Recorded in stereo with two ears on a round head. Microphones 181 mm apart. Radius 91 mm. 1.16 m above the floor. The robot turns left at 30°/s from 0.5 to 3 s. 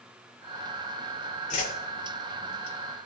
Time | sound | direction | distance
1.5 | a whoosh | 40° left (ahead or behind) | 2.5 m